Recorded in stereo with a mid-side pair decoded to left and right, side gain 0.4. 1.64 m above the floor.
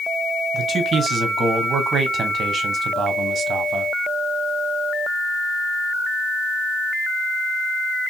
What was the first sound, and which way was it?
A man speaking, 55° right.